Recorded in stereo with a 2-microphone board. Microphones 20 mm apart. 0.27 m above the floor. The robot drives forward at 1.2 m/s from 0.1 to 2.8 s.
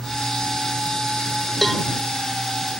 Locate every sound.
1.6 s a cowbell: 10° left (ahead or behind)